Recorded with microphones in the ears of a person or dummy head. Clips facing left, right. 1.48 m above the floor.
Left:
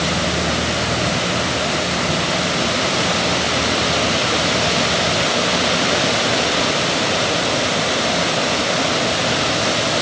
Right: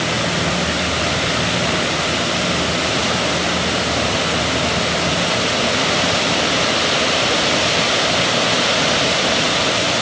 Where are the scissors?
I don't hear scissors.